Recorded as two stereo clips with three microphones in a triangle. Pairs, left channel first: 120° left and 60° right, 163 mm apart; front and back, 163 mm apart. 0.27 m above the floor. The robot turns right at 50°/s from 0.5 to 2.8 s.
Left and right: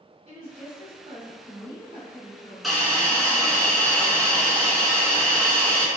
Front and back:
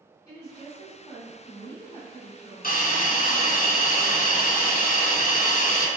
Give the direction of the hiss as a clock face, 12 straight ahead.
11 o'clock.